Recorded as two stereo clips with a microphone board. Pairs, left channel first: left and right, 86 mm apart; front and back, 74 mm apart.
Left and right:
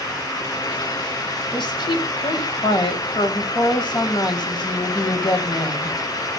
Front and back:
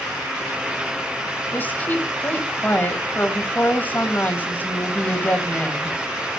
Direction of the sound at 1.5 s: 65° left.